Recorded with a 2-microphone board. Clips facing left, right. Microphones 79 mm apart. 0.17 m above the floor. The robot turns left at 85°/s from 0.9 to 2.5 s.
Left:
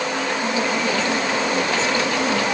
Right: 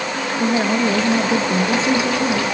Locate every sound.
0.4 s a woman speaking: 50° right, 2.5 m; by 2.5 s straight behind, 2.5 m